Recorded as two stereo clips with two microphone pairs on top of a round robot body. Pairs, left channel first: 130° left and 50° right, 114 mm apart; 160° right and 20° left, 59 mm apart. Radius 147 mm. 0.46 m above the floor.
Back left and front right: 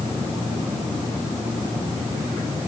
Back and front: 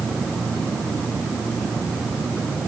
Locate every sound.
Only background noise.